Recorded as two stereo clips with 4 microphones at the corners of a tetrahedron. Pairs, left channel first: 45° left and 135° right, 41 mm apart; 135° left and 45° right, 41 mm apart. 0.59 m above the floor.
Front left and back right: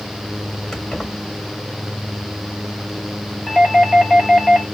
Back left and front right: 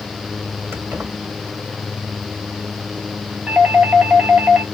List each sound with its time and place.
0.7 s keys jangling: 30° right, 2.5 m
3.5 s a doorbell: 25° right, 2.0 m